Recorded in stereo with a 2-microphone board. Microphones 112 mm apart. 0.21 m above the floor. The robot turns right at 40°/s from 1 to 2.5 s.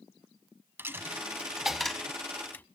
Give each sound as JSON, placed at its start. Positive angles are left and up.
{"t": 0.8, "sound": "a dropped coin", "side_deg": -20, "distance_m": 0.7}